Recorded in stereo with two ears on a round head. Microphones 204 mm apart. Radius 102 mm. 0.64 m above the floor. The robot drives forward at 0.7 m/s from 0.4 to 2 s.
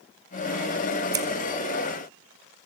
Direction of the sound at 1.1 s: 15° right (ahead or behind).